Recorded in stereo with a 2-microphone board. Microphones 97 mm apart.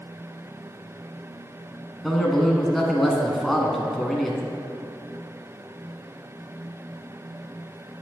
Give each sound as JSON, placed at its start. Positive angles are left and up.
{"t": 2.0, "sound": "a man speaking", "side_deg": 0, "distance_m": 1.4}